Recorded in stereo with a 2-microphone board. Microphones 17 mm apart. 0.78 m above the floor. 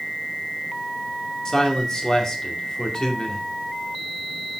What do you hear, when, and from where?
1.4 s a man speaking: 35° left (ahead or behind), 2 m